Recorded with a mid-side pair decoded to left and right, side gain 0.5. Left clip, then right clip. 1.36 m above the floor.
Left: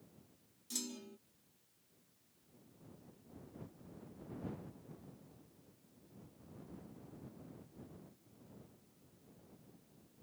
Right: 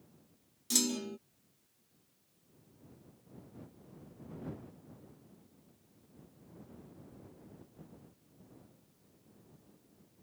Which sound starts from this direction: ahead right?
A clunk, at 0.7 s.